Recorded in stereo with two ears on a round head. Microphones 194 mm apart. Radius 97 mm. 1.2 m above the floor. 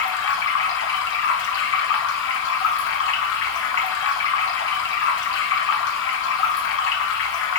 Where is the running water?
60° left (ahead or behind), 0.9 m.